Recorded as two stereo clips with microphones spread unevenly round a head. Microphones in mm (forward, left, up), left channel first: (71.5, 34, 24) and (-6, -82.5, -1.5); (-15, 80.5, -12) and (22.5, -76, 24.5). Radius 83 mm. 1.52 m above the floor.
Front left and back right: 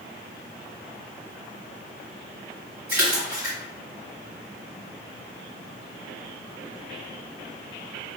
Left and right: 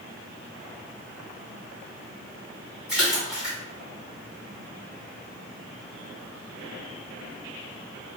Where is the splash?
155° right, 2.0 m.